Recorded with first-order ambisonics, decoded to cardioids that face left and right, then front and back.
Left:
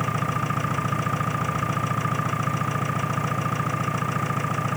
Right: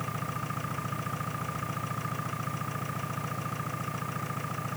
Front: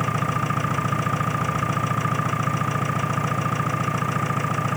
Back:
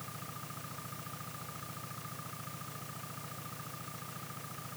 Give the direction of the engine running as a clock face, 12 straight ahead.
11 o'clock.